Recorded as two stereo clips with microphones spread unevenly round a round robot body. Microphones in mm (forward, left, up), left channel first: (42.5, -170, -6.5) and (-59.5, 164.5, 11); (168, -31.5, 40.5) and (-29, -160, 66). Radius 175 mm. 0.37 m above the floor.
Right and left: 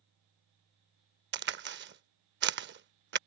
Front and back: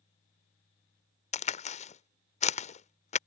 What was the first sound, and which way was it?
A crack, 60° left.